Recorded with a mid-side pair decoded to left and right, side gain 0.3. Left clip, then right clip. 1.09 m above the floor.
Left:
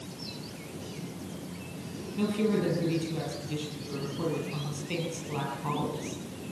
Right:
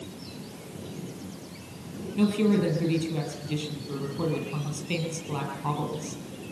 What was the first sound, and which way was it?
A woman speaking, 55° right.